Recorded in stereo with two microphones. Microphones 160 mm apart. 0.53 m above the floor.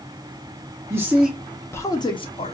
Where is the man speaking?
15° right (ahead or behind), 0.7 m; by 2.5 s 40° left (ahead or behind), 0.8 m.